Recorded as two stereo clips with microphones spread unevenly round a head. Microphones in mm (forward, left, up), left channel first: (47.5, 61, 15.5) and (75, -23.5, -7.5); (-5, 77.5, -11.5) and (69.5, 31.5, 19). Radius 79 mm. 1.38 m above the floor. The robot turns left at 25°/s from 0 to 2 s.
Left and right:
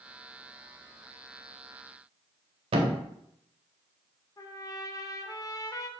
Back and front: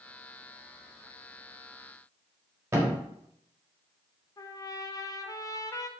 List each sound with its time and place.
2.7 s a thud: 70° right, 1.1 m
4.4 s a trumpet: 90° left, 0.8 m